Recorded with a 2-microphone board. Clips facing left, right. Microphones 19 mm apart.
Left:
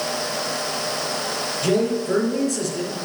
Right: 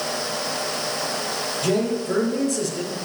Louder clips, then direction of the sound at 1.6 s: Left 2 dB; 15° left (ahead or behind).